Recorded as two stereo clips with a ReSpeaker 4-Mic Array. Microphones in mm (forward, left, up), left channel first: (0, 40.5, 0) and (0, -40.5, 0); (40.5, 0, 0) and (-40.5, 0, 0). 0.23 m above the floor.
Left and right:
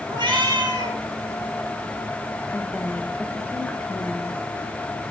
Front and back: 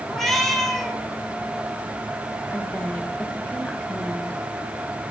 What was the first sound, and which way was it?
A cat meowing, 85° right.